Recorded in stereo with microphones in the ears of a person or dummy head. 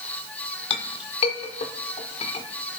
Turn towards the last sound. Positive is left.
turn(degrees=40)  # may be behind; listen again after turning